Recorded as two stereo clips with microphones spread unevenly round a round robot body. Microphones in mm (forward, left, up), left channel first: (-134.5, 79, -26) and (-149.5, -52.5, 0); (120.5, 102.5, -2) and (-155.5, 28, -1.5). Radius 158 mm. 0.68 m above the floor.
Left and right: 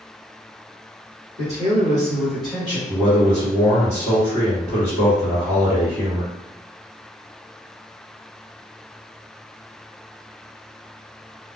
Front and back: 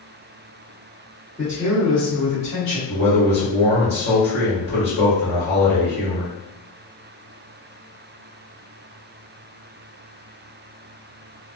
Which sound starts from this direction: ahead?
A man speaking, at 2.9 s.